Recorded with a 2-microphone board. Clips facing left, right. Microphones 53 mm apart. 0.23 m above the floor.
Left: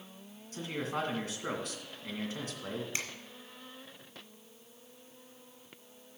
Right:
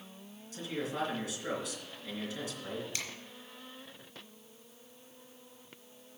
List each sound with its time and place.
0.5 s a man speaking: 40° left (ahead or behind), 2.5 m
2.9 s a finger snap: 30° left (ahead or behind), 2 m